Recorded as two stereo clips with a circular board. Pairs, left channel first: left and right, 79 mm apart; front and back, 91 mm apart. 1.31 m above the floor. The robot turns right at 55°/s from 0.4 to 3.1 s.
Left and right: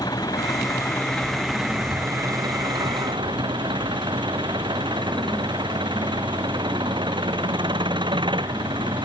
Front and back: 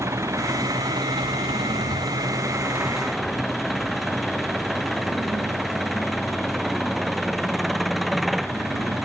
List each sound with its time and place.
0.0 s an engine running: 120° left; by 9.1 s 90° right